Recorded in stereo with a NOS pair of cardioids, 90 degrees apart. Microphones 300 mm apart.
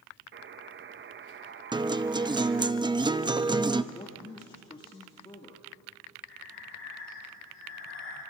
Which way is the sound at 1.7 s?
15° right.